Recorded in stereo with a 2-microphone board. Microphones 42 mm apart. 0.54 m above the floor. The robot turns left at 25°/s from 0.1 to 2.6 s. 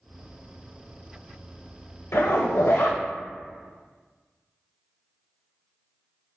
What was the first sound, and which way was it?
A zipper, 75° left (ahead or behind).